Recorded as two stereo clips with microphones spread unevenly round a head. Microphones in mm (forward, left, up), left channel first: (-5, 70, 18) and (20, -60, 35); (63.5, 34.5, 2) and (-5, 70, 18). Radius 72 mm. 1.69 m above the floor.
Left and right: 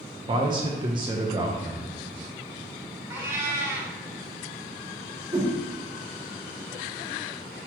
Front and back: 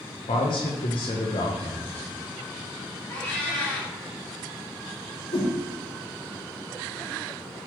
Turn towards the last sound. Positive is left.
turn(degrees=-15)